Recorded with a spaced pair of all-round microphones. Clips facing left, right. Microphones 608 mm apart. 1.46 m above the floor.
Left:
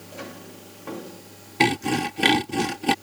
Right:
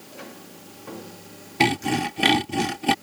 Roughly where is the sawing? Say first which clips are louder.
Even; centre.